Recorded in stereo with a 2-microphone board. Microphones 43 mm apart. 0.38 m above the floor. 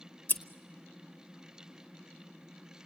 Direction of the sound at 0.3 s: 45° left (ahead or behind).